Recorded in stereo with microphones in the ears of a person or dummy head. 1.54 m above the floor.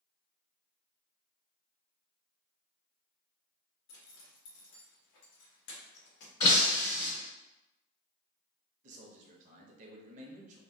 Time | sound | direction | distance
3.9 | a zipper | 65° left (ahead or behind) | 1.0 m
6.4 | breaking glass | 25° left (ahead or behind) | 1.9 m
8.8 | a man speaking | 40° right (ahead or behind) | 0.8 m